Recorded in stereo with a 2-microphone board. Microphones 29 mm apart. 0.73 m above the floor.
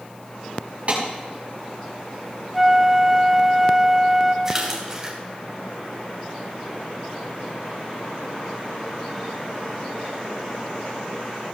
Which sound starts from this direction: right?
A clap, at 0.9 s.